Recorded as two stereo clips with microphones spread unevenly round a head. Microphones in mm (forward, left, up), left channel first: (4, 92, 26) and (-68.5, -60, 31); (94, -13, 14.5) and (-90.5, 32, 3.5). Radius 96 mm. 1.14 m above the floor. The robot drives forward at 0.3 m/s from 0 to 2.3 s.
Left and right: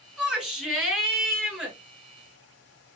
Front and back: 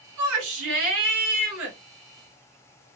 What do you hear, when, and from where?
0.2 s a shout: 155° left, 1.8 m; by 1.8 s 160° left, 2.5 m